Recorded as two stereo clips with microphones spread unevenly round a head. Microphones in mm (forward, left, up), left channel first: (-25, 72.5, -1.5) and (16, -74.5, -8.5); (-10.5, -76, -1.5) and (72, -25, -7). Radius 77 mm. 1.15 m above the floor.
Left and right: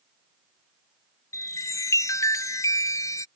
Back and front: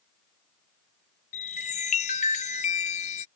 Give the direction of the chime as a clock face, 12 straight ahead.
6 o'clock.